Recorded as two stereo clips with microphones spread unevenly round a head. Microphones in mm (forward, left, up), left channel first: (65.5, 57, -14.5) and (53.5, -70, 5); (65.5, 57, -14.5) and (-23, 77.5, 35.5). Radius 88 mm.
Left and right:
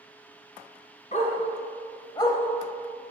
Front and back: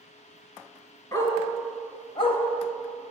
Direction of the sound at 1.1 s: 50° left.